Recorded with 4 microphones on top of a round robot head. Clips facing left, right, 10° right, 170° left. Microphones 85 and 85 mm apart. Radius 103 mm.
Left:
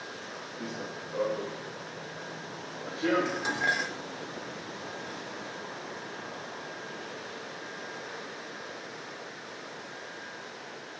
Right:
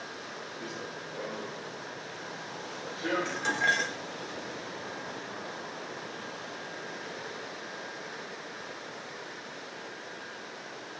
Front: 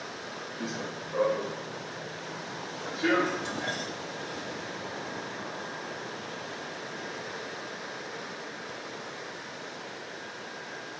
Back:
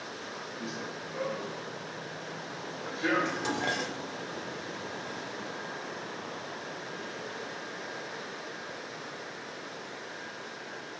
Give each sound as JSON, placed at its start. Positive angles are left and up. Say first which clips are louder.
{"t": 0.6, "sound": "running footsteps", "louder": "left 3 dB, front 4 dB", "azimuth_deg": 40, "distance_m": 1.6}
{"t": 3.2, "sound": "dishes clattering", "louder": "right 1 dB, back 1 dB", "azimuth_deg": 170, "distance_m": 1.6}